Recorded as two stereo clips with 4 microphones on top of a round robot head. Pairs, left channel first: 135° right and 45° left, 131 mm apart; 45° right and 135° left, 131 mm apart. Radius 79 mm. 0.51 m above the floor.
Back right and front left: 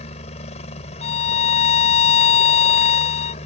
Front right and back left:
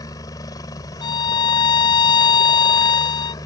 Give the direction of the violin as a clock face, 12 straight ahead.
3 o'clock.